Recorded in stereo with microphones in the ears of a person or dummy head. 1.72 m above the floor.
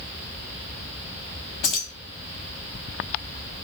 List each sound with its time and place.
1.6 s keys jangling: 30° left (ahead or behind), 0.8 m